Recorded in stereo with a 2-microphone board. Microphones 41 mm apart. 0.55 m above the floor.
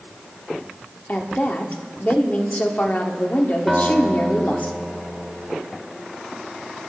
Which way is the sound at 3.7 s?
5° right (ahead or behind).